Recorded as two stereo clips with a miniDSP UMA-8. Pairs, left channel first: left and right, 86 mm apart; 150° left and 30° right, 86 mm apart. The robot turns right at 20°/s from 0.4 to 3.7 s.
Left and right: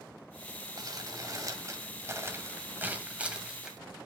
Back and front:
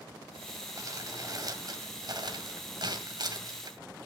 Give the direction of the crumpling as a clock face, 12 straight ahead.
2 o'clock.